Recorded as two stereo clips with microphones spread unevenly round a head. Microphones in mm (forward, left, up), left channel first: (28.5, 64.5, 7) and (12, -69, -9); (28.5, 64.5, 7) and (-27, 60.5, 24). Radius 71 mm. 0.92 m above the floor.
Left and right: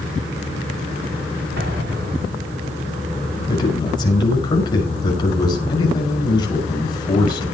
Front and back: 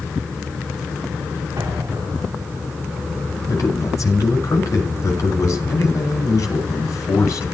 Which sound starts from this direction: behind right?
An explosion, at 1.6 s.